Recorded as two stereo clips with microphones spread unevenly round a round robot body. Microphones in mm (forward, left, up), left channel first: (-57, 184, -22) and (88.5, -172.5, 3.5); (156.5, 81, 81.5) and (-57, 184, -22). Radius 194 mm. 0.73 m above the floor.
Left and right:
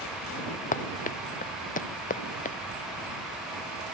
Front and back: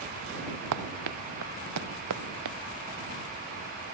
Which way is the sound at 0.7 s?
175° right.